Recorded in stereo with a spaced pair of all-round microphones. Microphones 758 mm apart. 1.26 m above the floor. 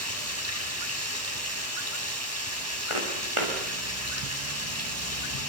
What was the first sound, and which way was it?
Running water, 20° right (ahead or behind).